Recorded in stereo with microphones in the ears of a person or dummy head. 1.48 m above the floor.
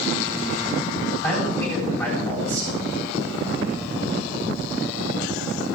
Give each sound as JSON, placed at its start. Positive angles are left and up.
{"t": 1.2, "sound": "a man speaking", "side_deg": 5, "distance_m": 8.5}